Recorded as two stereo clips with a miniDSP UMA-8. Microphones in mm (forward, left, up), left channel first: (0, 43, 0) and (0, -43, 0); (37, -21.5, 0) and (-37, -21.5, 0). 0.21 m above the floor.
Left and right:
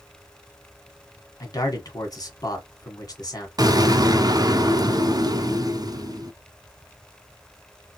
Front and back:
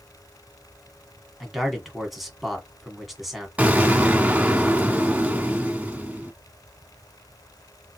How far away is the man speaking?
About 1.9 m.